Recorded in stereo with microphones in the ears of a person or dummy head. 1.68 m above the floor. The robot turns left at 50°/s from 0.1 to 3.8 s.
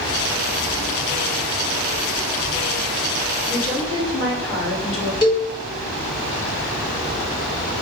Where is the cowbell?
25° left (ahead or behind), 1.1 m.